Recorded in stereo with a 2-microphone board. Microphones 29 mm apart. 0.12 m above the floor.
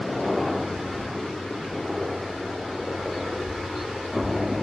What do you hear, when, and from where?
0.0 s a helicopter: 5° right (ahead or behind); by 4.6 s 10° right (ahead or behind)